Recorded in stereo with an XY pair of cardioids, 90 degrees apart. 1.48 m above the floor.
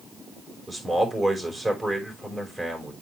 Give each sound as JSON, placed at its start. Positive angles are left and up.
{"t": 0.7, "sound": "a man speaking", "azimuth_deg": -15, "distance_m": 5.0}